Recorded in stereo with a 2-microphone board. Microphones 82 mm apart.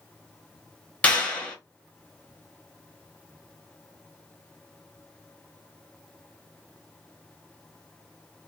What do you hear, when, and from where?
1.0 s a clap: 15° left (ahead or behind), 1.3 m